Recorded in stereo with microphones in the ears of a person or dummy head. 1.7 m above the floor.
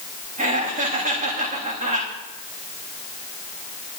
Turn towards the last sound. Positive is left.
turn(degrees=-40)  # may be behind; listen again after turning